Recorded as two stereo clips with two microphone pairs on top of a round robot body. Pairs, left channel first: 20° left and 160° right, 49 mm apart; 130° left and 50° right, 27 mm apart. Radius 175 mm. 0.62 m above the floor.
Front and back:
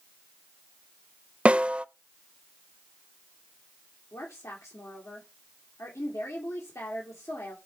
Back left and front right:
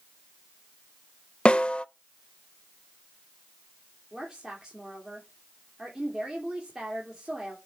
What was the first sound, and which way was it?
A snare drum, 155° left.